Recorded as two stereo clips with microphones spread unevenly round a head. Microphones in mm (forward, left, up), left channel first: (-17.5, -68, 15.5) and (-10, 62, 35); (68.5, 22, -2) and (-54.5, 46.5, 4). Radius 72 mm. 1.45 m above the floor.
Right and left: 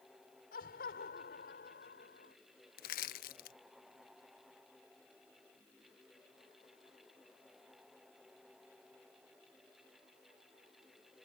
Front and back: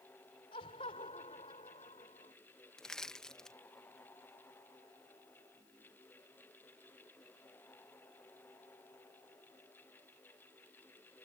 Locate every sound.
0.5 s laughter: 65° right; by 2.4 s 70° right
2.8 s crushing: 95° right